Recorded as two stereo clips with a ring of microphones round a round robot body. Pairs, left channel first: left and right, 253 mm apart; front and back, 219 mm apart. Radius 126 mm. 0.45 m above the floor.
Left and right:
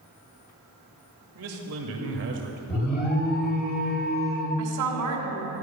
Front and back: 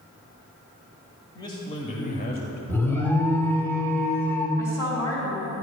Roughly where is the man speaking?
Right.